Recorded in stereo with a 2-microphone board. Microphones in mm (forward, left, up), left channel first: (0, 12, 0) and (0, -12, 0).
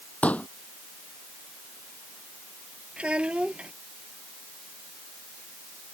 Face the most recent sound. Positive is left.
turn(degrees=-50)  # may be behind; listen again after turning